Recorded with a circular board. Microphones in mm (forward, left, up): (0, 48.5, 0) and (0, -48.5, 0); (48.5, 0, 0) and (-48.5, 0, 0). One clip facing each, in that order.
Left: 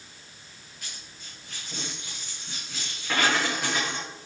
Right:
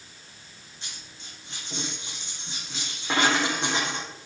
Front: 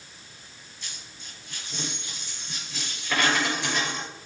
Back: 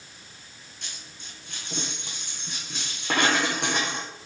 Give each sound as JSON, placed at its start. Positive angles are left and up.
{"t": 0.8, "sound": "a dropped coin", "azimuth_deg": -155, "distance_m": 5.5}